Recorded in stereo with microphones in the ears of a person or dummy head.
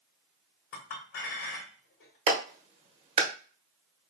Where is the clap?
35° right (ahead or behind), 1.0 m.